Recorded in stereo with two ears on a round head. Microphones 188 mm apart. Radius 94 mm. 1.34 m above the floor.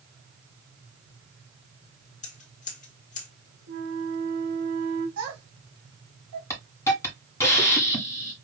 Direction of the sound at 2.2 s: 35° left (ahead or behind).